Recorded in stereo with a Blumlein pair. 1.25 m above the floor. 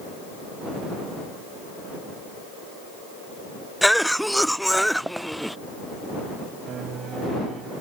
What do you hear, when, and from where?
3.8 s a cough: straight ahead
6.7 s a piano: 25° right